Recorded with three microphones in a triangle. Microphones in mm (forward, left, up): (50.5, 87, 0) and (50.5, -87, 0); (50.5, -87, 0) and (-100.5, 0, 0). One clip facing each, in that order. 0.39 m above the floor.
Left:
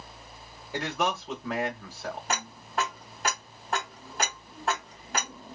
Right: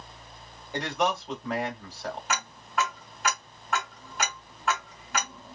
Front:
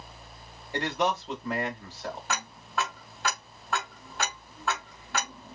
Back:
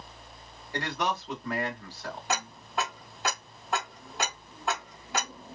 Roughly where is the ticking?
Left.